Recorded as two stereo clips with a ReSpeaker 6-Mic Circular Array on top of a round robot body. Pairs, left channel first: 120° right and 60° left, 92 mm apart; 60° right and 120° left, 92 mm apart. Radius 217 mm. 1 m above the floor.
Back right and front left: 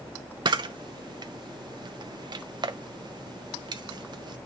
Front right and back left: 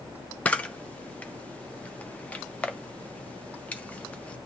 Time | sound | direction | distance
0.5 | a camera shutter | 15° left | 0.5 m